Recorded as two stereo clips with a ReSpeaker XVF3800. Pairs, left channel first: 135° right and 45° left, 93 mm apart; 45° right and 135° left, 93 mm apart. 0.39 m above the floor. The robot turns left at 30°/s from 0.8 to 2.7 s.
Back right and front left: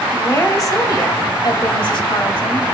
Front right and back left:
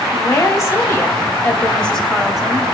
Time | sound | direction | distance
0.1 | a woman speaking | 90° right | 1.7 m